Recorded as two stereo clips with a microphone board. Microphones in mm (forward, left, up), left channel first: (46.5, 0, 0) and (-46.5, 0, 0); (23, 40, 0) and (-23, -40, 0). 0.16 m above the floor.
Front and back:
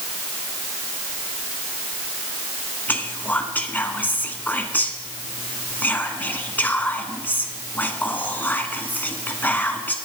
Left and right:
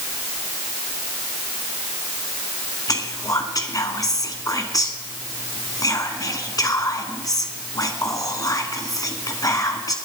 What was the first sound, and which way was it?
Whispering, 60° left.